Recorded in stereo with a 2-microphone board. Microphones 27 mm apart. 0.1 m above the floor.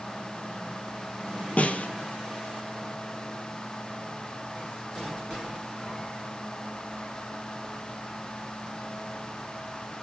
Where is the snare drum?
60° left (ahead or behind), 1.1 m.